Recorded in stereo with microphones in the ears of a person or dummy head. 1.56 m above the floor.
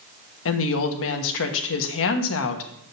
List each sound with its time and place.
0.5 s a woman speaking: 70° left (ahead or behind), 1.2 m